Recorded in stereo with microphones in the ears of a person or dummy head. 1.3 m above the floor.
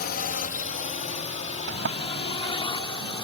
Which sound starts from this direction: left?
A drone, at 0.0 s.